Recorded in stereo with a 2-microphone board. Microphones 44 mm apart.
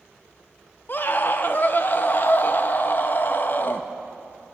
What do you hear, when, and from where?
0.9 s a scream: 45° left (ahead or behind), 0.7 m